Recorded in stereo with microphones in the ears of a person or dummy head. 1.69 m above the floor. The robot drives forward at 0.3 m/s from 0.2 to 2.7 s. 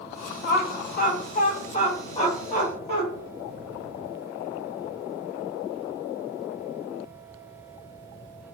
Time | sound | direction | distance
0.4 | laughter | 60° left (ahead or behind) | 0.6 m